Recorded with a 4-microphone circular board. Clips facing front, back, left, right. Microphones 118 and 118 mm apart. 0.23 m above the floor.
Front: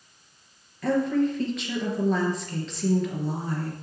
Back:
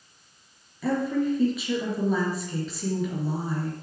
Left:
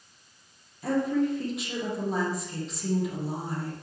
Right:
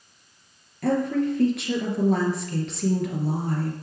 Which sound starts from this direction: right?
A woman speaking, at 0.8 s.